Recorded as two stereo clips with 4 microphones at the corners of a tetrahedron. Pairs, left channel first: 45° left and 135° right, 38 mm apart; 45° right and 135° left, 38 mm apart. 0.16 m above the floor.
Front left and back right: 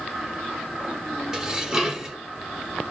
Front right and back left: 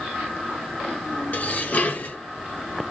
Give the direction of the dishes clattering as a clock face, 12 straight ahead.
2 o'clock.